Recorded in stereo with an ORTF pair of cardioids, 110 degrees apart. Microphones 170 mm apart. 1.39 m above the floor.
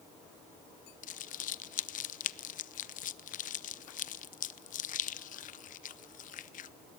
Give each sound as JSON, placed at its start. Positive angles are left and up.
{"t": 1.0, "sound": "crumpling", "azimuth_deg": 50, "distance_m": 0.8}